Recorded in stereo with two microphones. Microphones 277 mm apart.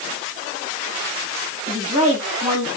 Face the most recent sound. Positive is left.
turn(degrees=-25)  # may be behind; listen again after turning